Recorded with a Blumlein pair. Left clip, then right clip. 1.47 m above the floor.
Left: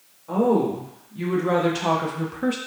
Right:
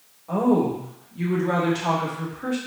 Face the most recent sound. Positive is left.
turn(degrees=45)